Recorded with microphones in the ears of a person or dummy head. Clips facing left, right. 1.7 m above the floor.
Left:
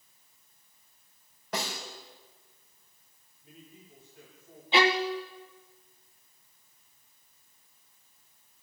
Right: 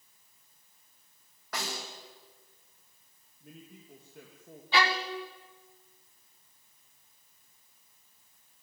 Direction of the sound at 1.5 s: 20° left (ahead or behind).